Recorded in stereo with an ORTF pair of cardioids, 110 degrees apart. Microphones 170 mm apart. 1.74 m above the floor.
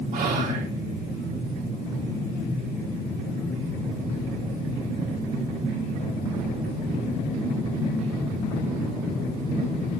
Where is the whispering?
50° right, 2.5 m.